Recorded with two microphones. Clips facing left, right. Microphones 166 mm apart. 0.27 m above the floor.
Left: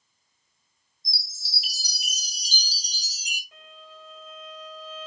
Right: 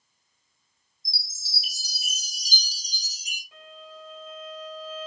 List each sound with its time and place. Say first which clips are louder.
1.1 s a chime: left 1 dB; 75° left (ahead or behind), 0.8 m
3.5 s a violin: right 8 dB; centre (ahead or behind), 1.9 m